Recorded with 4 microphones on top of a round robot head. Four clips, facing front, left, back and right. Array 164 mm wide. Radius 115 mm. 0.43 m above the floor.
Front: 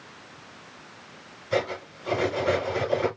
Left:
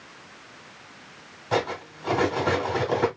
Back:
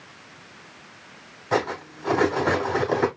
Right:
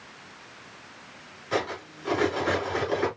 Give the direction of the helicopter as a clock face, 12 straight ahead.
I don't hear a helicopter.